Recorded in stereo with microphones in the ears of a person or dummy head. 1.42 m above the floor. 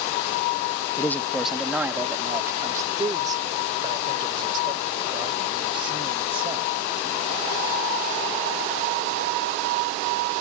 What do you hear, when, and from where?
1.0 s a man speaking: 15° left (ahead or behind); by 7.3 s 30° right (ahead or behind)